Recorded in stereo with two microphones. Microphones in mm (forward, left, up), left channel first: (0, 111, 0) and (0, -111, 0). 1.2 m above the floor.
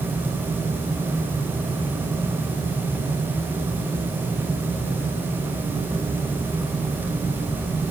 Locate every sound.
Only background noise.